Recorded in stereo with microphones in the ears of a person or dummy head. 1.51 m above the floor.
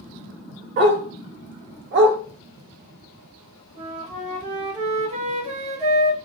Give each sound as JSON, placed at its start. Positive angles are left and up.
{"t": 0.8, "sound": "a dog barking", "side_deg": -45, "distance_m": 1.2}
{"t": 3.8, "sound": "a flute", "side_deg": -35, "distance_m": 0.8}